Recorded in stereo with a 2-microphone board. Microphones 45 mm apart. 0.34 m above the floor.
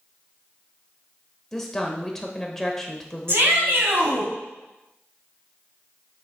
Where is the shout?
55° right (ahead or behind), 2.5 m.